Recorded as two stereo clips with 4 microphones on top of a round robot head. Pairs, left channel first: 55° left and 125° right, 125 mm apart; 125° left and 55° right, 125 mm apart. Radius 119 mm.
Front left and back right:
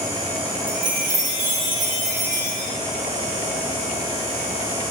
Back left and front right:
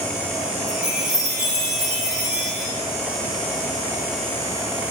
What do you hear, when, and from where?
0.7 s a chime: 140° right, 3.5 m